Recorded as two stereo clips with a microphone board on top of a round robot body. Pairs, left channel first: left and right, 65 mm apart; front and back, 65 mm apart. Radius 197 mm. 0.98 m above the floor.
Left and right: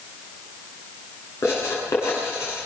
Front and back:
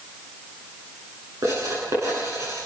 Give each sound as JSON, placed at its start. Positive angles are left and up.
{"t": 1.4, "sound": "writing", "azimuth_deg": 140, "distance_m": 9.0}